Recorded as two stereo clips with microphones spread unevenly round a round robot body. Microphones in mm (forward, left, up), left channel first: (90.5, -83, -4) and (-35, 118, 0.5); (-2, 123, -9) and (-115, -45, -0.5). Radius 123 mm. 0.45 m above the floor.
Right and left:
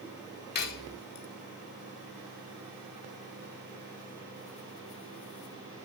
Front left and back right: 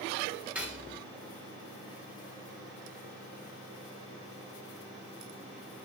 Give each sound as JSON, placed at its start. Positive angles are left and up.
{"t": 0.6, "sound": "cutlery clinking", "azimuth_deg": -40, "distance_m": 0.5}